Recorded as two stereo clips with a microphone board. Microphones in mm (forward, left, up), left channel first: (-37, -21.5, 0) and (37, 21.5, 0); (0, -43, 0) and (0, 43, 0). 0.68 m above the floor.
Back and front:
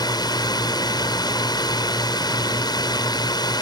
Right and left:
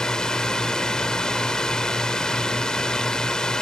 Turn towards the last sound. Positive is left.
turn(degrees=-170)